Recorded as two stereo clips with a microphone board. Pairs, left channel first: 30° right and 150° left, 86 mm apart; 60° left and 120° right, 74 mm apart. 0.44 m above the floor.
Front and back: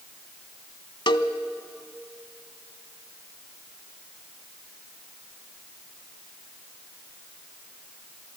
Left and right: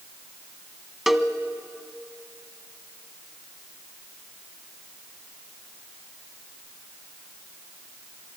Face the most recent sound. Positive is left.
turn(degrees=-35)